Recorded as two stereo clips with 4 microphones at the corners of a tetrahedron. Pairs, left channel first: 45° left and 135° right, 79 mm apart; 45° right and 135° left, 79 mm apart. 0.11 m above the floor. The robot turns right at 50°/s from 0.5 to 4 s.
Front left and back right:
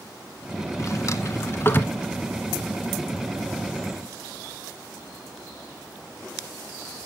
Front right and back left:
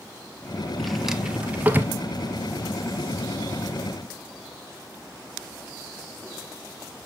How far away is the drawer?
About 0.8 m.